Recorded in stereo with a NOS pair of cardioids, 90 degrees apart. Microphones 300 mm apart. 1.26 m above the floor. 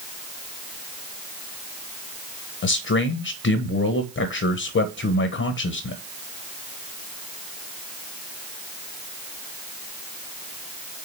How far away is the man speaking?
About 1.1 m.